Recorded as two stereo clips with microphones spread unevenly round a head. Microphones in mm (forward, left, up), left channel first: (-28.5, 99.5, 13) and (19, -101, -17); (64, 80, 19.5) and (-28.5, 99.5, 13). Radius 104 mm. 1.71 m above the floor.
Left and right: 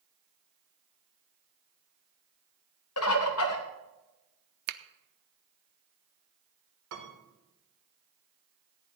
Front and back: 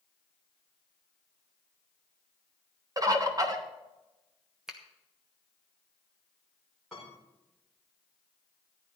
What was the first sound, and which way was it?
A bird, 115° left.